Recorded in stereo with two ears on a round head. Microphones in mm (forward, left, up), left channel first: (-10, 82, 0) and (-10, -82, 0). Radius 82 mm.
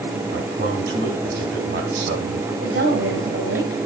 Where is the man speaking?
50° right (ahead or behind), 3.5 m.